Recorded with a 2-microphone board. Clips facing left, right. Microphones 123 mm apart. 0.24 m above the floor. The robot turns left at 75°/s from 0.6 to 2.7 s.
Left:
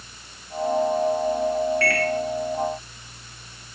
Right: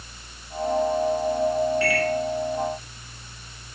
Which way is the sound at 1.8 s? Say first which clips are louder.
Even; 15° right (ahead or behind).